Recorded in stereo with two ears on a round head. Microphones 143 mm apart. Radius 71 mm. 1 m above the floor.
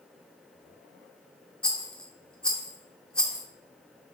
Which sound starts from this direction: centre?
A rattle, at 1.6 s.